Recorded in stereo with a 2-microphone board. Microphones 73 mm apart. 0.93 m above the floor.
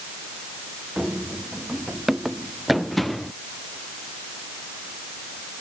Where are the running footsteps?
10° right (ahead or behind); by 3.3 s centre (ahead or behind).